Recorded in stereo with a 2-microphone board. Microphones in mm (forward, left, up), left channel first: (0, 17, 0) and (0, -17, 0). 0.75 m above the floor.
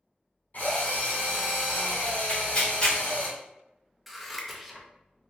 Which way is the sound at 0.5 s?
65° left (ahead or behind).